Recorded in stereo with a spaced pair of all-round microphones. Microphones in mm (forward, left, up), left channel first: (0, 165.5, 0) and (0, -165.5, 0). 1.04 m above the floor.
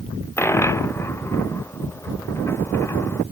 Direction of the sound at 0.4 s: 10° left (ahead or behind).